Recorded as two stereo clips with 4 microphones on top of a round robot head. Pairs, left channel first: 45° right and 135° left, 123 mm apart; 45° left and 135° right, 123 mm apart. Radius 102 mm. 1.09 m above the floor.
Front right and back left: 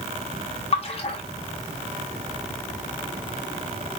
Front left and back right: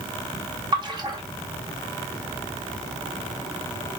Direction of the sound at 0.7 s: 80° right.